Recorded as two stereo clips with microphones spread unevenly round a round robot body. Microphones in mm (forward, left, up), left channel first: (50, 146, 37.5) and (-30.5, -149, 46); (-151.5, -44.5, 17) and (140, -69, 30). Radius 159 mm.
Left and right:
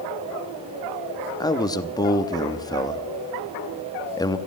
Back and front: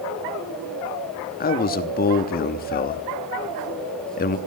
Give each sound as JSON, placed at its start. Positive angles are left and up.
{"t": 1.4, "sound": "a man speaking", "azimuth_deg": 140, "distance_m": 0.9}